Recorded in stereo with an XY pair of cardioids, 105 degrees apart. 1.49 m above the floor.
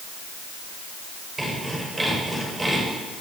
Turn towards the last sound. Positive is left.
turn(degrees=-20)